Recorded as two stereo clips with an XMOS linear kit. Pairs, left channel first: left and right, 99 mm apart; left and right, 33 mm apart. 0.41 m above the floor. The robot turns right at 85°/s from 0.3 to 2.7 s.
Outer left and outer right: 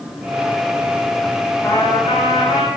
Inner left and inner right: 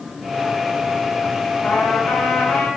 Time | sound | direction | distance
1.6 | a trumpet | 20° left | 4 m